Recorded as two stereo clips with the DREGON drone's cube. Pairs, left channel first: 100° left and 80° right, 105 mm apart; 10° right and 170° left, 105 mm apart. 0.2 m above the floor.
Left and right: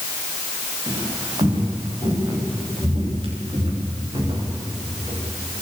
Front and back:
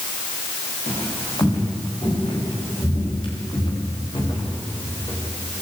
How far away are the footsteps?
About 10 m.